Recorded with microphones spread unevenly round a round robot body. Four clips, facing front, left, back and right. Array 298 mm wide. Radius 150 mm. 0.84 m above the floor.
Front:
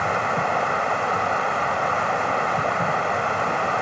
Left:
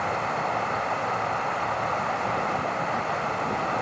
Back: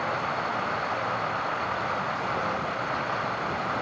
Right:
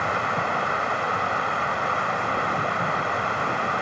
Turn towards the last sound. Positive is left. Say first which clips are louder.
# right 2 dB, front 6 dB
turn(degrees=-30)